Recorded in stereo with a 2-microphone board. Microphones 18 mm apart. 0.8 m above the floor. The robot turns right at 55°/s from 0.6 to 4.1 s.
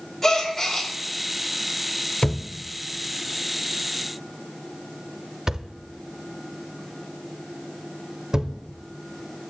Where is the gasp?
20° left (ahead or behind), 2 m; by 0.9 s 5° left (ahead or behind), 2 m.